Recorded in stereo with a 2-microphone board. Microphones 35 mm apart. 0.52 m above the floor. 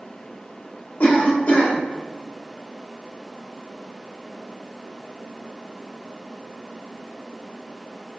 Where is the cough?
60° left (ahead or behind), 1.6 m.